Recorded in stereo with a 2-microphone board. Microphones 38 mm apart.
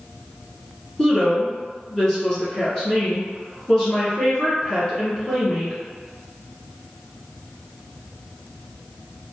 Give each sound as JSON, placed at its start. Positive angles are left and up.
{"t": 1.0, "sound": "a woman speaking", "side_deg": 15, "distance_m": 1.5}